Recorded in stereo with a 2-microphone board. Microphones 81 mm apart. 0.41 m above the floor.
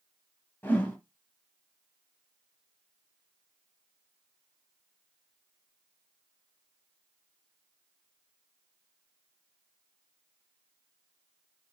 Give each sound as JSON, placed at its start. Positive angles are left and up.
{"t": 0.6, "sound": "a whoosh", "side_deg": 25, "distance_m": 1.0}